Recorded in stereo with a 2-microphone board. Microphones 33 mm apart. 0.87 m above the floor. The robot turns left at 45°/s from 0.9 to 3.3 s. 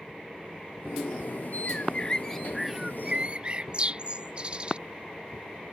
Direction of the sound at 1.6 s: 40° left (ahead or behind).